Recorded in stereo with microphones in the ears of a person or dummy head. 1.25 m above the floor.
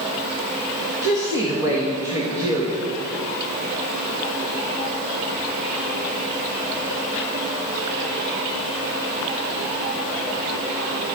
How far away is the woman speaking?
About 1.4 m.